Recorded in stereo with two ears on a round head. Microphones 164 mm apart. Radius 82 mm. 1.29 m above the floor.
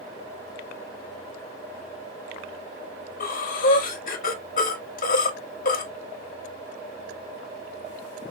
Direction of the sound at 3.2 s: 45° left (ahead or behind).